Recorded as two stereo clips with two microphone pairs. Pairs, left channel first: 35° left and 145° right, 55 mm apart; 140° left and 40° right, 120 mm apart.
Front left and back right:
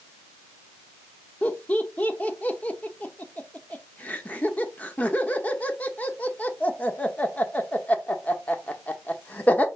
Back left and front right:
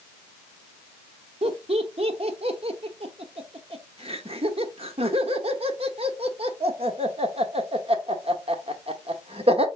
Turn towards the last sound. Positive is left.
turn(degrees=-20)